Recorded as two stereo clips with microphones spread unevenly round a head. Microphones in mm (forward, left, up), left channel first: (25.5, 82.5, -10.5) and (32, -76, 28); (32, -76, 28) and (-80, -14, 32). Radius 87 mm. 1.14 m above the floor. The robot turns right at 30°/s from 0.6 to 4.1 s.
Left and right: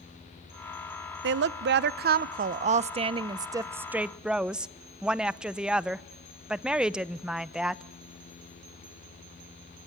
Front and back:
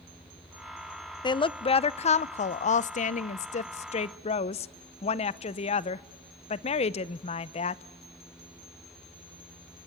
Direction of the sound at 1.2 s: 80° right.